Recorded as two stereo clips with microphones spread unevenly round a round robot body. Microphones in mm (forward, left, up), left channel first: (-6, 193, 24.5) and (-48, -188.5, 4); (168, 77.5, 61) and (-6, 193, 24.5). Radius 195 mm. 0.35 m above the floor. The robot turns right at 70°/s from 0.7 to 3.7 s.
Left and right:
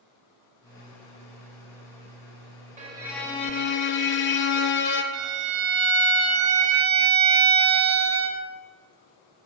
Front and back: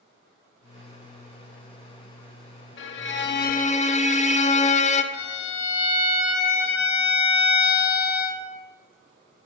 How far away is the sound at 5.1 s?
About 0.6 m.